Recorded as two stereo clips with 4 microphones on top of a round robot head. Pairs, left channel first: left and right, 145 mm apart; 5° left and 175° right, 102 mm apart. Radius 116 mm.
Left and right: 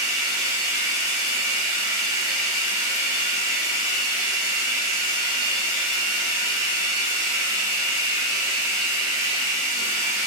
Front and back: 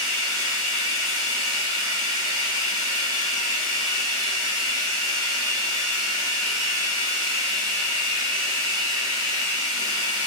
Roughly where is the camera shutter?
I don't hear a camera shutter.